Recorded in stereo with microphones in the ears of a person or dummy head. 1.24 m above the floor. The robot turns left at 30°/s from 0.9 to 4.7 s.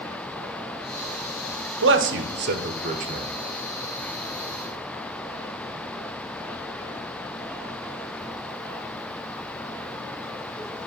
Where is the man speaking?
65° right (ahead or behind), 0.8 m; by 3.3 s 35° right (ahead or behind), 0.8 m.